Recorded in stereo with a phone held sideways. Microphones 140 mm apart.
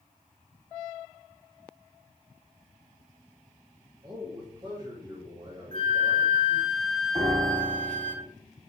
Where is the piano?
55° right (ahead or behind), 2.5 m.